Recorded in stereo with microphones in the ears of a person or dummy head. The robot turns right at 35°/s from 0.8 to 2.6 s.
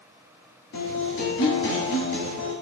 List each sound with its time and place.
0.7 s a guitar: 70° left, 1.8 m; by 2.5 s 130° left, 1.8 m